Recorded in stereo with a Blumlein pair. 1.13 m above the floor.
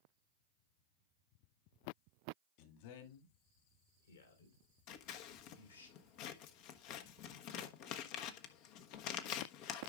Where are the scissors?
40° left, 1.1 m.